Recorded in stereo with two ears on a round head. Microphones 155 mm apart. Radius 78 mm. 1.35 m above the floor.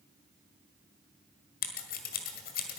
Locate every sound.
1.6 s scissors: 55° left (ahead or behind), 1.7 m